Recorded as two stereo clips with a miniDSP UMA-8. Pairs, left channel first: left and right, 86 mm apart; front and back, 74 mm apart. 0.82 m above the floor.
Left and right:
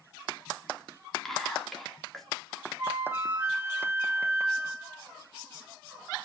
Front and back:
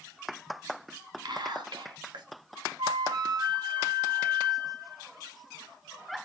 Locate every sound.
1.2 s whispering: 175° left, 2 m
2.8 s a flute: 155° right, 2.5 m